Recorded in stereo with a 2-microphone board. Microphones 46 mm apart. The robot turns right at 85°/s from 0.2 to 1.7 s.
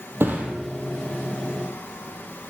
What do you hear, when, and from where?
0.2 s a thud: 50° right (ahead or behind), 3 m; by 0.5 s 25° right (ahead or behind), 3 m